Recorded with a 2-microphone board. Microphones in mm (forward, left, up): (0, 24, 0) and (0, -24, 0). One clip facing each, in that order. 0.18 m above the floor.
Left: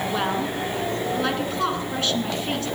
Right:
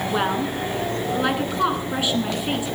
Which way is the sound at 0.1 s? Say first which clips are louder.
Right 4 dB; 15° right (ahead or behind).